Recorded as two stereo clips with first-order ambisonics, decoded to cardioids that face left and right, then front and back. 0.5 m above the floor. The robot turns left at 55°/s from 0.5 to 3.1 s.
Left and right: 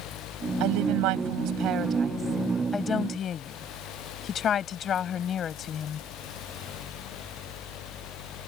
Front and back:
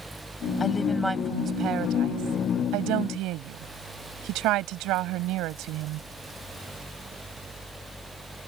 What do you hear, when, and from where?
0.6 s a woman speaking: 70° right; by 6.1 s 150° left